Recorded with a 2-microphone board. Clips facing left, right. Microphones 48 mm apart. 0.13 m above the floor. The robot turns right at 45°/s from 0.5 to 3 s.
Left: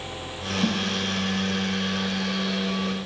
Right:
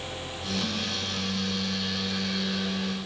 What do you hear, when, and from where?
0.6 s a snare drum: 65° left (ahead or behind), 4 m; by 0.8 s 55° left (ahead or behind), 4 m